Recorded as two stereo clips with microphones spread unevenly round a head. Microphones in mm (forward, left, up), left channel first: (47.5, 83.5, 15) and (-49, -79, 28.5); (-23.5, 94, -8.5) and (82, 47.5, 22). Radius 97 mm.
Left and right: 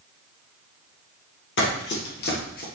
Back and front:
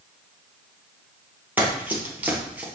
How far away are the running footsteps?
About 3 m.